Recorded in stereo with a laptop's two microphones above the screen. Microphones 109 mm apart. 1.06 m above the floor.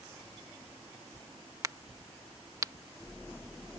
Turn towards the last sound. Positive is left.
turn(degrees=-35)  # may be behind; listen again after turning